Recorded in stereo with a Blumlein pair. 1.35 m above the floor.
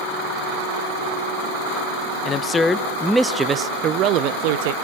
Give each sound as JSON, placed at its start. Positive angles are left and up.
{"t": 2.2, "sound": "a man speaking", "azimuth_deg": 25, "distance_m": 1.0}